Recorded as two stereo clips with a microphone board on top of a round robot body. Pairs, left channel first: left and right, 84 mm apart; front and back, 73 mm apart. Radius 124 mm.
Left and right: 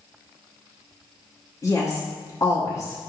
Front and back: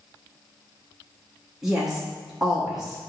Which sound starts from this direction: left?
A woman speaking, at 1.6 s.